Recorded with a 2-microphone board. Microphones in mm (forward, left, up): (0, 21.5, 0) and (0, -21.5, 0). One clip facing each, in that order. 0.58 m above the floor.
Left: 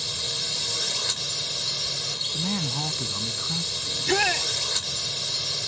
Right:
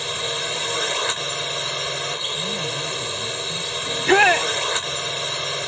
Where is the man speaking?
50° left (ahead or behind).